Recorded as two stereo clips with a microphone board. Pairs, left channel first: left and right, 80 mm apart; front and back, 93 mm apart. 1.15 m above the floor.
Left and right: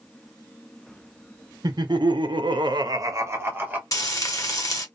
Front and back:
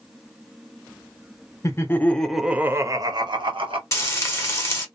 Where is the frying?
55° left, 1.2 m.